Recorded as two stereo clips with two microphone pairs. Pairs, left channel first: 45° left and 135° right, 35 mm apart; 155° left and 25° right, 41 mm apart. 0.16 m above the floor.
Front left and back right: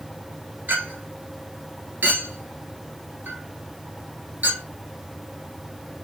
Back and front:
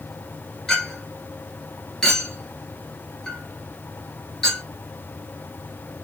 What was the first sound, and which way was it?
A clink, 130° right.